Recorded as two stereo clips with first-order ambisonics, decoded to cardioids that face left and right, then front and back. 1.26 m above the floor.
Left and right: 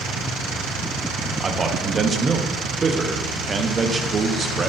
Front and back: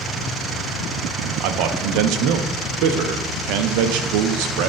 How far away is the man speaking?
About 0.6 m.